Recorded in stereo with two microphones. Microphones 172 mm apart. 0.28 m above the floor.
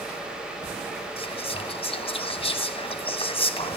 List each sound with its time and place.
1.2 s whispering: 35° left (ahead or behind), 1.6 m